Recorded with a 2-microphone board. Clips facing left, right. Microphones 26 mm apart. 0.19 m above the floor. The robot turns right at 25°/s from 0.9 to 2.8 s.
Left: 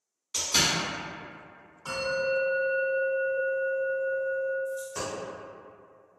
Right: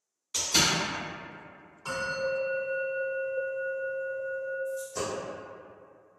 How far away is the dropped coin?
About 1.3 m.